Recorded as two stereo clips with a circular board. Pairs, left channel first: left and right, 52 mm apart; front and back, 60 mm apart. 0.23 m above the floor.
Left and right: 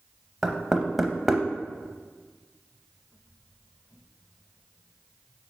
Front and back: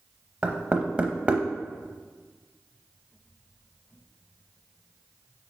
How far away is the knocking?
About 0.6 m.